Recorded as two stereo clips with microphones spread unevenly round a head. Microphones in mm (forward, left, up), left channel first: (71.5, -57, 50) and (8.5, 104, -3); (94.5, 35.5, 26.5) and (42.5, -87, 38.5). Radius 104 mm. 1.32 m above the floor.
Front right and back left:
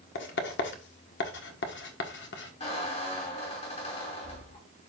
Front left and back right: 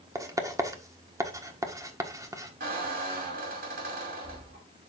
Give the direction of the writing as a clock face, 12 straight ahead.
1 o'clock.